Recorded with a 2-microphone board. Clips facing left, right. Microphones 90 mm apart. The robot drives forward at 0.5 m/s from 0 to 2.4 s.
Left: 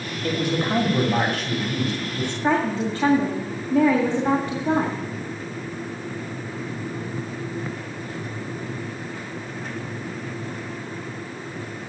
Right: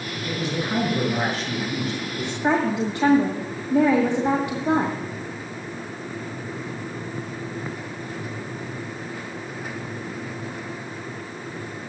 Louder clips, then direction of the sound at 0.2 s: Left 4 dB; 60° left (ahead or behind).